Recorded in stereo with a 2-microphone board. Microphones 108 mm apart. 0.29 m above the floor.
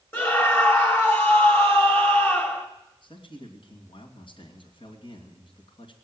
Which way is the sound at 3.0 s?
60° left (ahead or behind).